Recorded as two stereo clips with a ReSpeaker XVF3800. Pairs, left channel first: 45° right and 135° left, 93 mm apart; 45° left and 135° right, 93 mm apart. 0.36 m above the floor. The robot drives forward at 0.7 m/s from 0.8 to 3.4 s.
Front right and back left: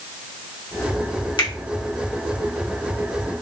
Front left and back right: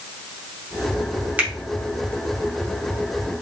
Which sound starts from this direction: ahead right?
A finger snap, at 1.4 s.